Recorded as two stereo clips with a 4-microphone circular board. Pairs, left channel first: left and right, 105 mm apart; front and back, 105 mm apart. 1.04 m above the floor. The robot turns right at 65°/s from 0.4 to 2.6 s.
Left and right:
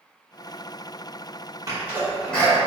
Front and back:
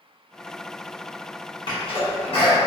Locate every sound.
1.7 s a sneeze: 35° right, 1.6 m; by 2.6 s 25° left, 1.6 m